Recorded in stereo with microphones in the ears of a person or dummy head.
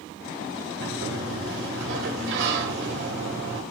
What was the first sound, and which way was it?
A sliding door, 70° right (ahead or behind).